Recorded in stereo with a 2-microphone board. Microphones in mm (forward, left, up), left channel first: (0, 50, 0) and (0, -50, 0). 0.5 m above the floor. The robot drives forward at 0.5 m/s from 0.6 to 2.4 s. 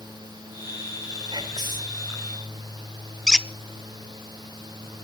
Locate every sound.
1.3 s whispering: 45° right (ahead or behind), 1.8 m
3.3 s a squeak: 5° left (ahead or behind), 0.6 m